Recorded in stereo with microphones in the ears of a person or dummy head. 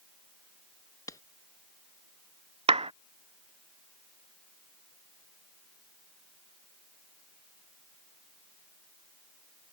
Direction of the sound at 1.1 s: 20° left (ahead or behind).